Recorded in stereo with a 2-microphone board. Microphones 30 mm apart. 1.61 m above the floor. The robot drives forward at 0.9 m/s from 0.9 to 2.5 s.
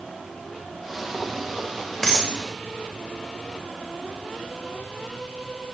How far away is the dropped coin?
About 1.4 m.